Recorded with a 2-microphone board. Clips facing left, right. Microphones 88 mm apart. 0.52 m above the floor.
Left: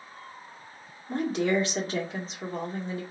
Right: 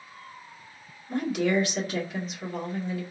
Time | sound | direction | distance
1.1 | a woman speaking | 30° left (ahead or behind) | 1.5 m